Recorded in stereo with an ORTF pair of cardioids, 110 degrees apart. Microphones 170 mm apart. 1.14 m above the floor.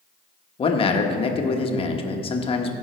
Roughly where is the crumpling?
No crumpling in this recording.